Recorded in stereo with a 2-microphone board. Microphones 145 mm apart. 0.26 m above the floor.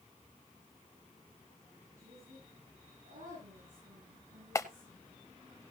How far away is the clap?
About 0.8 m.